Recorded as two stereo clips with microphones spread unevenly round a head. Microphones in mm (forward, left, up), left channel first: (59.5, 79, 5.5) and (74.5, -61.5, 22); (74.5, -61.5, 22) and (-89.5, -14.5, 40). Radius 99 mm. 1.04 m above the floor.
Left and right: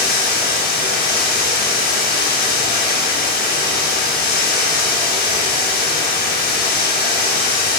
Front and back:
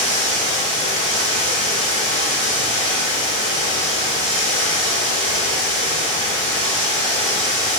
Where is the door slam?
No door slam in this recording.